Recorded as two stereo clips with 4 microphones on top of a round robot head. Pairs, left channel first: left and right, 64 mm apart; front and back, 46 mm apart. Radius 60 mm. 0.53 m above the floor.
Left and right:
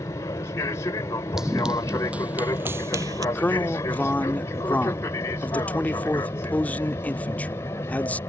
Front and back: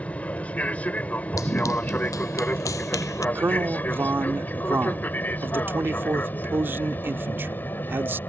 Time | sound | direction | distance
0.0 | an aircraft | 55° left | ?
1.4 | running footsteps | 5° right | ?
3.4 | a man speaking | 150° left | ?